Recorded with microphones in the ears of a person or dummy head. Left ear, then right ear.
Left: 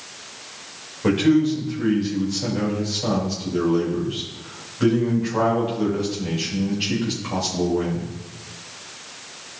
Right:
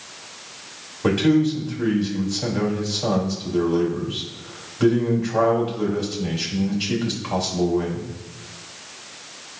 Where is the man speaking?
30° right (ahead or behind), 3 m.